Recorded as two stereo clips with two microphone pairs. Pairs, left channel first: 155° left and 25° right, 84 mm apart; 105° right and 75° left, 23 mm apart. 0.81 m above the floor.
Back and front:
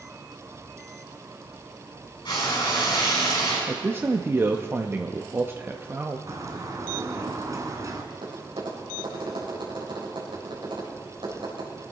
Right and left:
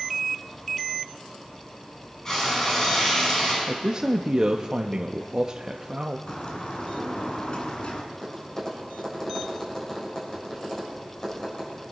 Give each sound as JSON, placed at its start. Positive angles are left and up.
{"t": 2.2, "sound": "frying", "azimuth_deg": -170, "distance_m": 5.5}
{"t": 3.7, "sound": "a man speaking", "azimuth_deg": 30, "distance_m": 0.6}
{"t": 6.3, "sound": "a bird", "azimuth_deg": -70, "distance_m": 1.7}
{"t": 8.1, "sound": "tapping", "azimuth_deg": -35, "distance_m": 4.0}